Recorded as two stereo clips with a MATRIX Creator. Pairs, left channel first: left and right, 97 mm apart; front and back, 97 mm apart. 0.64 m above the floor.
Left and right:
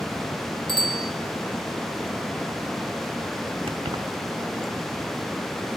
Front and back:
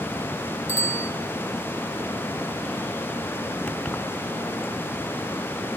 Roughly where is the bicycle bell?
Left.